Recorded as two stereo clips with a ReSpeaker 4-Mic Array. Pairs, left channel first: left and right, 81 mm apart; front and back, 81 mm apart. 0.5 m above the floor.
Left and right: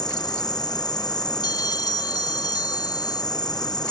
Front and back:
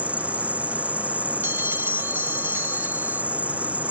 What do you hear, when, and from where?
0.0 s an insect: 110° left
1.4 s a bell: 120° left